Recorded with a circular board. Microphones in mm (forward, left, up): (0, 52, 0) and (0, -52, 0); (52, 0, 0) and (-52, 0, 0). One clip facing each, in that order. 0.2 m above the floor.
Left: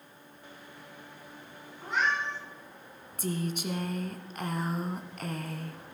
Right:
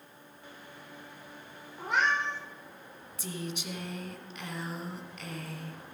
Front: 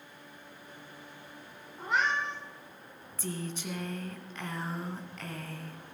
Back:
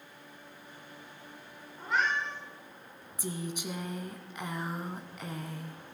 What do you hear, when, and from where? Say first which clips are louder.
1.8 s a cat meowing: right 1 dB, front 1 dB; 70° right, 8.5 m
3.2 s a woman speaking: left 6 dB, back 1 dB; 110° left, 1.4 m